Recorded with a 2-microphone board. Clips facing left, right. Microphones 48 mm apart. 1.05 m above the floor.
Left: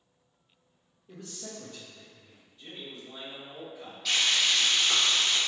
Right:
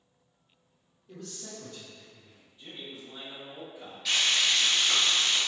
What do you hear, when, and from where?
1.1 s a man speaking: 20° left (ahead or behind), 0.9 m; by 2.5 s 30° left (ahead or behind), 1.4 m
2.6 s a man speaking: 20° right (ahead or behind), 1.9 m
4.0 s frying: 5° right (ahead or behind), 1.4 m